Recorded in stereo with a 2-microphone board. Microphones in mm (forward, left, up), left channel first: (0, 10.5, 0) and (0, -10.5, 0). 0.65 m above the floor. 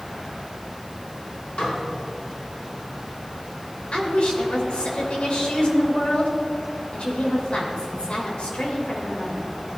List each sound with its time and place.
1.6 s dishes clattering: 70° left (ahead or behind), 4.5 m
3.9 s a woman speaking: 60° left (ahead or behind), 3 m